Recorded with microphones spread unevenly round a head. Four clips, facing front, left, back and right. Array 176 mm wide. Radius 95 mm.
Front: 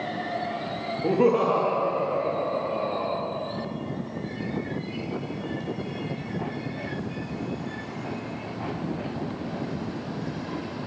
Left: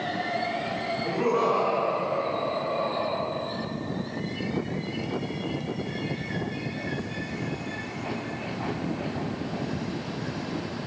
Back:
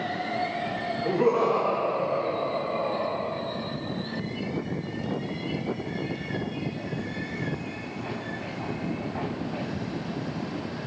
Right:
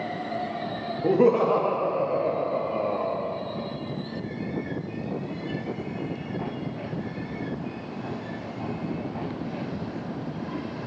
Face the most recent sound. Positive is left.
turn(degrees=-55)